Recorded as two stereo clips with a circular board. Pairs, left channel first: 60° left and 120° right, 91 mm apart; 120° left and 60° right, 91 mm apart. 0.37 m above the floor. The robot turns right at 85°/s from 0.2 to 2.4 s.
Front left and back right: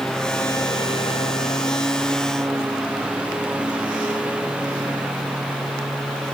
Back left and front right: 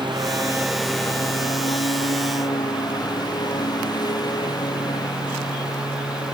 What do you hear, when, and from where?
0.0 s a lawn mower: 25° right; by 6.4 s 165° left